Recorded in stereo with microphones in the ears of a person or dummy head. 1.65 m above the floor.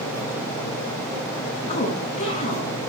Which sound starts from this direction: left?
A woman speaking, at 1.7 s.